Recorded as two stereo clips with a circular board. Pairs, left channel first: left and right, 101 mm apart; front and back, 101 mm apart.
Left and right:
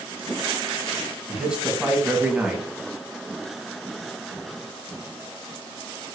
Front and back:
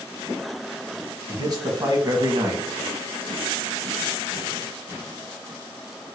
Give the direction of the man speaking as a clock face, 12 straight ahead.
6 o'clock.